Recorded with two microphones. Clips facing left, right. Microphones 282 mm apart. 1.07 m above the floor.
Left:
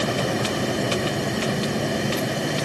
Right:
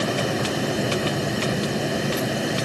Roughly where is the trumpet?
I don't hear a trumpet.